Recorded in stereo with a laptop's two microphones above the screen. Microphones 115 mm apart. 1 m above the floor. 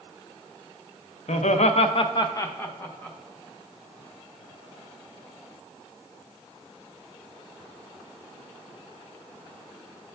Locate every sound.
1.3 s laughter: 75° left (ahead or behind), 0.6 m; by 3.2 s 10° left (ahead or behind), 1.1 m